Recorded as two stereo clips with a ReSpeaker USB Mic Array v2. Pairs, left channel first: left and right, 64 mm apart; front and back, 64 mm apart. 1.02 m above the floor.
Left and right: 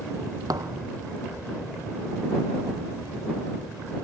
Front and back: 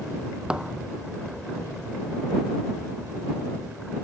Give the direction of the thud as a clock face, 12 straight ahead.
3 o'clock.